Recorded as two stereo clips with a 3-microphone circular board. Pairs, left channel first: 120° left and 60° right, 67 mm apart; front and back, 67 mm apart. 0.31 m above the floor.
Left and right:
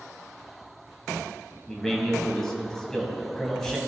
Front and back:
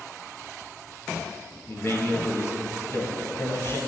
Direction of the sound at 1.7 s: 40° left.